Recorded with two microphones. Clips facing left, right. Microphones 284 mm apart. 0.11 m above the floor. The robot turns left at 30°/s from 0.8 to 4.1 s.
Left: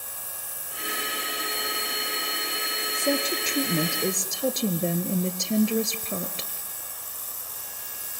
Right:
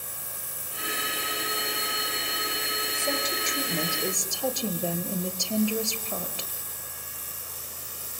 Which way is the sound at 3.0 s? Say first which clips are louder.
Left 7 dB; 65° left.